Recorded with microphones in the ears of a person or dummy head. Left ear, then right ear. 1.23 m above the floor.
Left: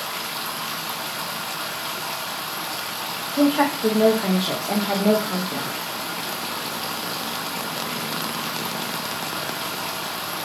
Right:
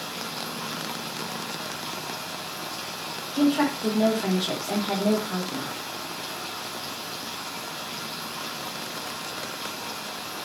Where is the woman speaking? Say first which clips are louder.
Left 4 dB; 5° left (ahead or behind), 1.2 m.